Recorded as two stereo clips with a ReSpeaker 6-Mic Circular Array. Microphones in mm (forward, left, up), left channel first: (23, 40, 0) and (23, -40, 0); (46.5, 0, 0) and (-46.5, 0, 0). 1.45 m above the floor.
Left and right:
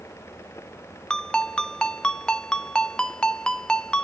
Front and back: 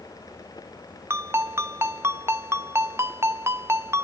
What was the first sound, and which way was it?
A ringtone, 160° left.